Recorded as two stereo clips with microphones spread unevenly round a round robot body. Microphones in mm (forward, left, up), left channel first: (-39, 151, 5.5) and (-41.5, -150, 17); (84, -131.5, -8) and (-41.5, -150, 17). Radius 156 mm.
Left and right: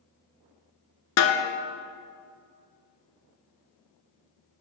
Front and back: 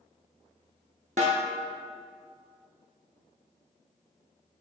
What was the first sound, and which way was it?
A snare drum, 125° left.